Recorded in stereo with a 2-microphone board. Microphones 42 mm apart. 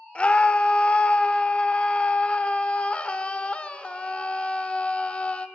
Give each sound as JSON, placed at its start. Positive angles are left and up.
{"t": 0.1, "sound": "a scream", "side_deg": 30, "distance_m": 1.1}